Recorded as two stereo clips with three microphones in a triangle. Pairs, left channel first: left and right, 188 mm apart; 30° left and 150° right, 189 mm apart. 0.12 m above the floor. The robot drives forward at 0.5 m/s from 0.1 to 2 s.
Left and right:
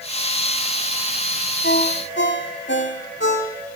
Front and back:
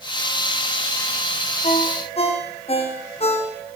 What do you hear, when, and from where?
1.6 s a ringtone: 85° left, 4 m